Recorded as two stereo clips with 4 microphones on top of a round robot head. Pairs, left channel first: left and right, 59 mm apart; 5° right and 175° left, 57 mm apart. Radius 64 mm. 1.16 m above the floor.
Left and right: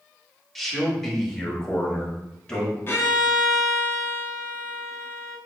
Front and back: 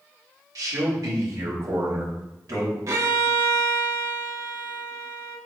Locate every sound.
0.6 s a man speaking: 175° left, 1.4 m; by 2.8 s 160° left, 3 m
2.9 s a violin: 140° left, 0.9 m